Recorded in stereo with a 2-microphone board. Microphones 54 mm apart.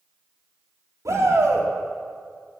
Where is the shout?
80° right, 3.5 m.